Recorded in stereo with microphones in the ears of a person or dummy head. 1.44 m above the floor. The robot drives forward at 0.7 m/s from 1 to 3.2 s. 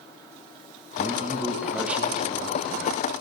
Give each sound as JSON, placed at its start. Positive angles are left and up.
{"t": 1.0, "sound": "a man speaking", "side_deg": -20, "distance_m": 1.4}